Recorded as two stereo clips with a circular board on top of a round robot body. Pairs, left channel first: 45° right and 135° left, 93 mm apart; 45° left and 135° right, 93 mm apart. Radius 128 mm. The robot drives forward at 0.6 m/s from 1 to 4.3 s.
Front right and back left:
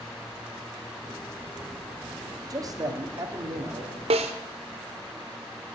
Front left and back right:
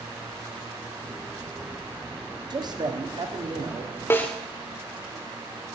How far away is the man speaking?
About 1.6 m.